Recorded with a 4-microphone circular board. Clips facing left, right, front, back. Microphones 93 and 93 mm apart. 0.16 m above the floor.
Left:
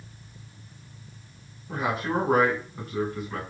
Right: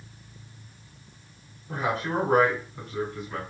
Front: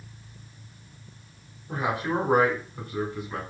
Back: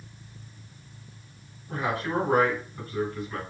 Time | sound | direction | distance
1.7 | a man speaking | 25° left | 1.1 m